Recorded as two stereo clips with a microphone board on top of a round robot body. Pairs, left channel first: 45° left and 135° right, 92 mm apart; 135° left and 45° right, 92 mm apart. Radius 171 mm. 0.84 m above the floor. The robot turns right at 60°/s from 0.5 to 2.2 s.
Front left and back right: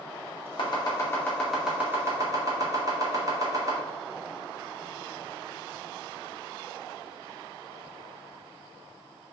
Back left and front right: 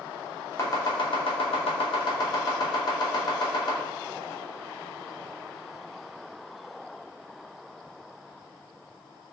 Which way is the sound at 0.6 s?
75° left.